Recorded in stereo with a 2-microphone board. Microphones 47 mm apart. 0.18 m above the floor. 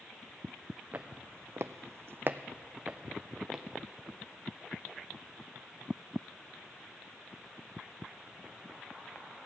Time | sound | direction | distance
0.9 | footsteps | 40° right (ahead or behind) | 1.0 m